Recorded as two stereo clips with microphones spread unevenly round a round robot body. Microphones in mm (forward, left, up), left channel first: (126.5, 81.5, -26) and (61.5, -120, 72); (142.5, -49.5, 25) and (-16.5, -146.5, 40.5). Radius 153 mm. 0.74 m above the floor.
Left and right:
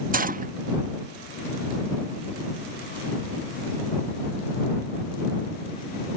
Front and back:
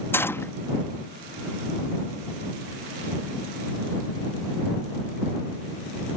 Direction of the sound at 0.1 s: 40° right.